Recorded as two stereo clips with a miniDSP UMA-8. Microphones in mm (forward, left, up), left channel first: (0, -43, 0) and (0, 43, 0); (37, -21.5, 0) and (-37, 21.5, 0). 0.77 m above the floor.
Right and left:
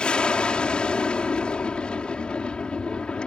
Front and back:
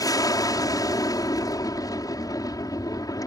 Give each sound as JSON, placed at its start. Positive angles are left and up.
{"t": 0.0, "sound": "an aircraft", "azimuth_deg": -15}